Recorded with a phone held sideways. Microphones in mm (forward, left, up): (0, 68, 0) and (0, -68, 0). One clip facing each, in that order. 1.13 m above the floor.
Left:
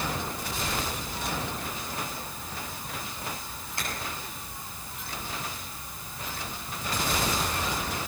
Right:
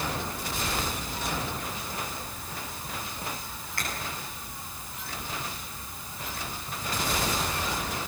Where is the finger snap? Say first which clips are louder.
Even; 20° left (ahead or behind), 8 m.